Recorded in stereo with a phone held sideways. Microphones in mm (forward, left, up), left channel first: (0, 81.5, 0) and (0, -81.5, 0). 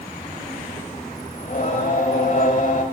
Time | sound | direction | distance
1.4 | singing | 50° left (ahead or behind) | 1.1 m